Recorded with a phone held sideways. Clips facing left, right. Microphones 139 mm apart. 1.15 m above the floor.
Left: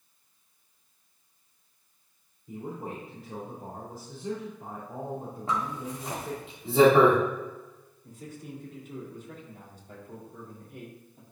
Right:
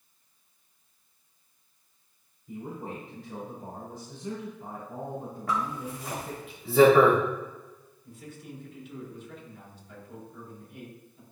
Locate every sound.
2.5 s a man speaking: 30° left (ahead or behind), 3.5 m
5.5 s a zipper: 25° left (ahead or behind), 2.5 m
8.0 s a man speaking: 45° left (ahead or behind), 3 m